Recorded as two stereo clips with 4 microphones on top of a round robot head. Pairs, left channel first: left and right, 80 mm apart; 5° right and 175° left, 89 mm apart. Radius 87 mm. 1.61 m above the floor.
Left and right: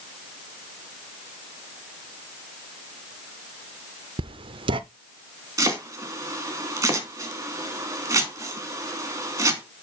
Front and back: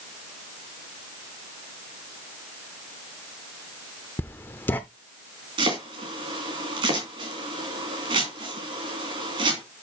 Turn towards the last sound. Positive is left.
turn(degrees=-140)